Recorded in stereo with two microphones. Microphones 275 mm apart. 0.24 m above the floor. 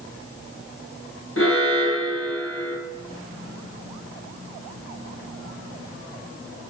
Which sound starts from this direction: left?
An alarm, at 1.4 s.